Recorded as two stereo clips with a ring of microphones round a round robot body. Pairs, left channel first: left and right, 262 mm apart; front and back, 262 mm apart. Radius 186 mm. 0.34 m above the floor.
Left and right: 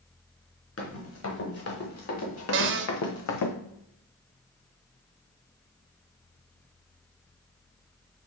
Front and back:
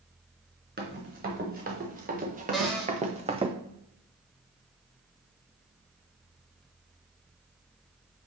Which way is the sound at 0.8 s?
120° left.